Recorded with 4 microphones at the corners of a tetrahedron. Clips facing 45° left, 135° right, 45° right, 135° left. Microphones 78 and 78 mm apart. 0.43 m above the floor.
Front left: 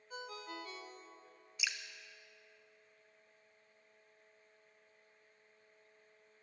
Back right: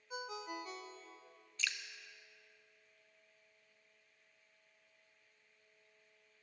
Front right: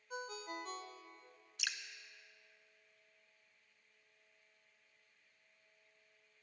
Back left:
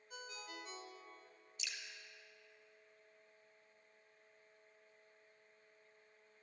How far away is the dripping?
About 0.8 m.